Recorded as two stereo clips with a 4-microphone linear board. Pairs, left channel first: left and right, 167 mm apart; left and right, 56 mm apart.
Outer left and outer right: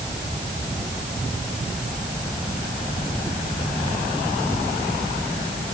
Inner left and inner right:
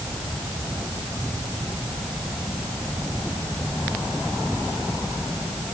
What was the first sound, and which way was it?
Only background noise.